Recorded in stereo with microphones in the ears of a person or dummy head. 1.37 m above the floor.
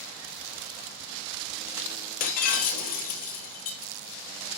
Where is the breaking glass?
55° left (ahead or behind), 3 m.